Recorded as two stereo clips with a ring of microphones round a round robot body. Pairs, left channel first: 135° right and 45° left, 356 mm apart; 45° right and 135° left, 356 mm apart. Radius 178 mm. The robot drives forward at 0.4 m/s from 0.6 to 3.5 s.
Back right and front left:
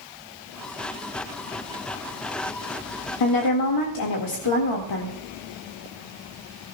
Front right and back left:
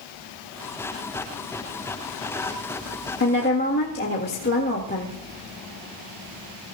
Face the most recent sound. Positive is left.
turn(degrees=-105)